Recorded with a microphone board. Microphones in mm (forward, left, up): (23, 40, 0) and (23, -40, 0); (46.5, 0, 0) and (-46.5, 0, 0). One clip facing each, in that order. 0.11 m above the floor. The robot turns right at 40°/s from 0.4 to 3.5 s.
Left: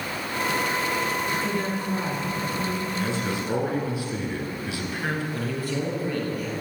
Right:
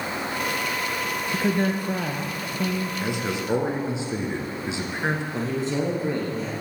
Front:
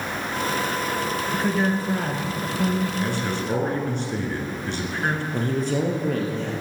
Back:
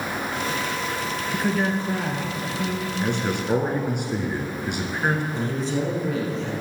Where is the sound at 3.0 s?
140° right, 1.9 m; by 5.2 s 120° right, 1.9 m.